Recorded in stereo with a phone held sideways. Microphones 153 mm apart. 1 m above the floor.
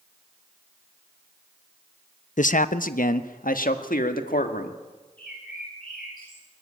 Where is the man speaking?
65° left (ahead or behind), 0.6 m; by 4.8 s 80° left, 2 m.